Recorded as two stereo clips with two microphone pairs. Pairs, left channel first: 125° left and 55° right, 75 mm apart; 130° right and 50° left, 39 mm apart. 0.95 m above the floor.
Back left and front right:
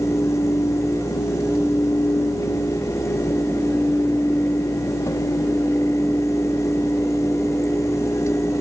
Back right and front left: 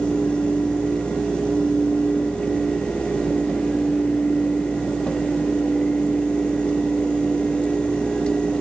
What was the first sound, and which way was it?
Only background noise.